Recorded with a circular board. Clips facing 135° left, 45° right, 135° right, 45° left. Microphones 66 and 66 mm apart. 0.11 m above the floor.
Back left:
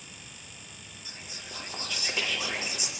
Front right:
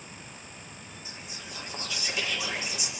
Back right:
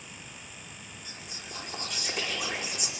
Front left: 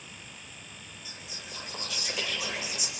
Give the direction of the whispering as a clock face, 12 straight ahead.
6 o'clock.